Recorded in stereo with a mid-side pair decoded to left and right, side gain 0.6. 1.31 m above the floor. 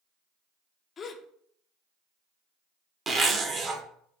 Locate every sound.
1.0 s a gasp: 40° left, 0.5 m
3.1 s a zipper: 35° right, 0.9 m